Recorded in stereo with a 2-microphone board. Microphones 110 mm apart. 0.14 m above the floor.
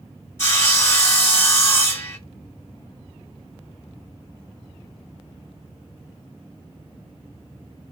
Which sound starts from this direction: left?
Sawing, at 0.4 s.